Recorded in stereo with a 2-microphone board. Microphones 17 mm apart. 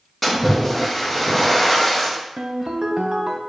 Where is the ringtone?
60° right (ahead or behind), 0.5 m.